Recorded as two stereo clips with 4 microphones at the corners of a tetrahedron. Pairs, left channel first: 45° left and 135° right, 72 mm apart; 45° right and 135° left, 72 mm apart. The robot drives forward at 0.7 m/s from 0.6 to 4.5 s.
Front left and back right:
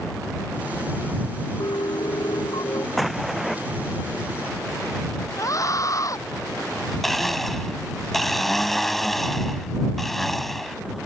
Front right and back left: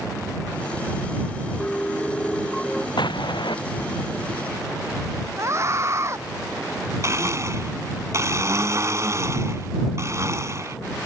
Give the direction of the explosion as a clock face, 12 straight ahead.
2 o'clock.